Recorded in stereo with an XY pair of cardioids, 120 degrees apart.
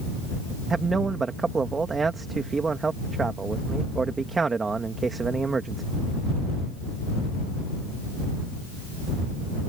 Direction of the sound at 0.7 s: 25° right.